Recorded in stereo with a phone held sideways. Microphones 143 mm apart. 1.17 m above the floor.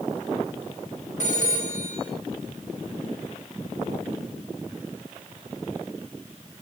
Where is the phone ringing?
55° left (ahead or behind), 9 m.